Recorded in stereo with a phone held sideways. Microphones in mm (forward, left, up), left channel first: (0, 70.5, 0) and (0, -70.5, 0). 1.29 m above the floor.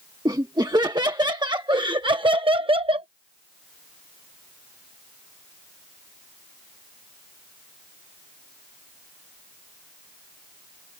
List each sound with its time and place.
0.2 s laughter: 30° right (ahead or behind); by 3.1 s 40° right (ahead or behind)